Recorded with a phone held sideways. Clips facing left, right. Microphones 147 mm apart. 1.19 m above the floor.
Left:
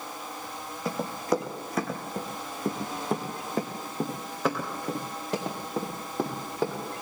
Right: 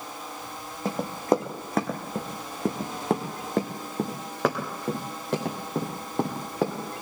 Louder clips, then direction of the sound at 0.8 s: Right 4 dB; 50° right (ahead or behind).